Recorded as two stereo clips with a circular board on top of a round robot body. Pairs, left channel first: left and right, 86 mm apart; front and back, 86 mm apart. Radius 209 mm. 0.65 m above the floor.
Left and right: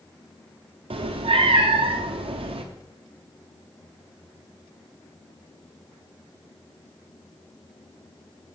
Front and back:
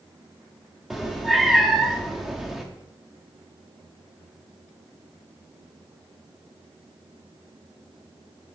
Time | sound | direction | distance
0.9 | a cat meowing | 95° right | 0.7 m